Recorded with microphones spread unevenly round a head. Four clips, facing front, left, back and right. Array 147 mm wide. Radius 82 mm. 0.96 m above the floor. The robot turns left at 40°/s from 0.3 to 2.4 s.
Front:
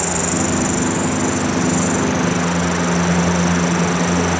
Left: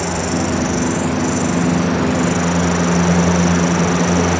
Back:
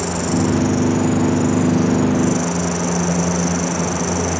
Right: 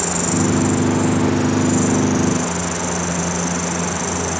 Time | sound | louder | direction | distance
0.0 | an insect | even, back 1 dB | 145° right | ?